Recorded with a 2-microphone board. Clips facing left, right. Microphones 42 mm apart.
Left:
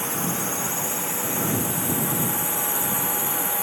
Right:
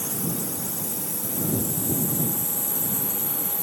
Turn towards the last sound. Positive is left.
turn(degrees=75)  # may be behind; listen again after turning